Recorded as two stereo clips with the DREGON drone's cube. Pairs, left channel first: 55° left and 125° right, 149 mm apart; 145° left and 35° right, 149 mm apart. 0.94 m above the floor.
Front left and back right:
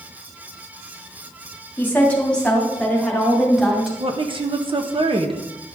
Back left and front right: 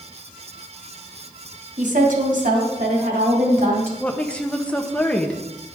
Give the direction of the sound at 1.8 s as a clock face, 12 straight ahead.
1 o'clock.